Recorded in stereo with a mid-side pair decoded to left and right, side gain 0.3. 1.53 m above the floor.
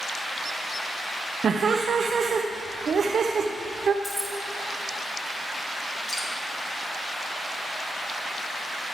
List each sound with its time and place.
1.4 s laughter: 65° right, 0.6 m
4.0 s keys jangling: 20° left, 2.5 m
6.1 s dripping: 45° left, 2.5 m